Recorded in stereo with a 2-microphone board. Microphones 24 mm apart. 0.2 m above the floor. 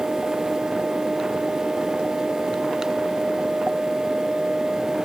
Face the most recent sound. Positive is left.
No sound to turn to.